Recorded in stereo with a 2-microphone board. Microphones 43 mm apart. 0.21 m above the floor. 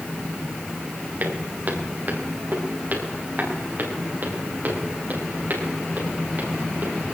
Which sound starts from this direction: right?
Footsteps, at 1.2 s.